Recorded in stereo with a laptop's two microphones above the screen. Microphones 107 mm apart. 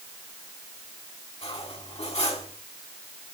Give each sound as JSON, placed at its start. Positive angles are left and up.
{"t": 1.4, "sound": "cutlery clinking", "side_deg": 70, "distance_m": 6.0}